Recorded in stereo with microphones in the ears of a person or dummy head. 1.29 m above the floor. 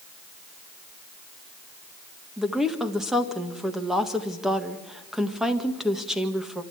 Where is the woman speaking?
Centre (ahead or behind), 1.8 m.